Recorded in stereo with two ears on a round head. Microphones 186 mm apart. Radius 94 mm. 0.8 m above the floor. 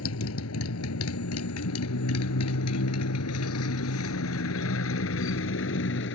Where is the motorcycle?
80° left; by 6.2 s 60° left (ahead or behind).